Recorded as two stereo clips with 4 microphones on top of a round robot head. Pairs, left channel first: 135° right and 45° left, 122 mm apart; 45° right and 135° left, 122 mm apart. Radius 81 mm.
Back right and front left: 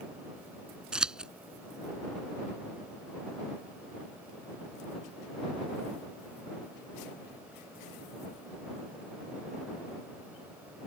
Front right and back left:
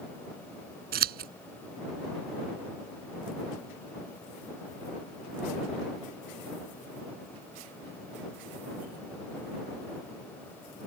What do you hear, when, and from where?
0.9 s scissors: 130° left